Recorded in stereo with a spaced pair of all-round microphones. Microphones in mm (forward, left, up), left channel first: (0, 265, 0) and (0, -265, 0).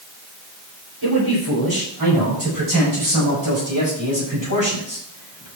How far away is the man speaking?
About 7 m.